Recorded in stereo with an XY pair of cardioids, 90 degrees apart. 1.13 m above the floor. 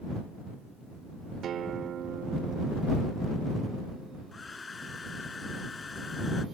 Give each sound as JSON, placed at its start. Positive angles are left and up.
{"t": 1.4, "sound": "a guitar", "azimuth_deg": -70}
{"t": 4.3, "sound": "a hair dryer", "azimuth_deg": 35}